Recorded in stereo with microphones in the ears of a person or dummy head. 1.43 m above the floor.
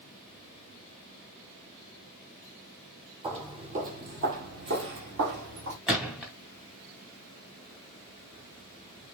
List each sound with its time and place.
3.2 s footsteps: 30° right (ahead or behind), 1.9 m; by 5.8 s 60° right (ahead or behind), 3 m
5.9 s a gunshot: centre (ahead or behind), 1.3 m